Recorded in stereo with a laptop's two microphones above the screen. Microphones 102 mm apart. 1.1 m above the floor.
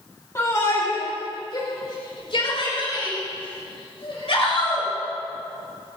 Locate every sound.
0.3 s a shout: 30° left (ahead or behind), 2.5 m; by 4.9 s 70° left (ahead or behind), 6 m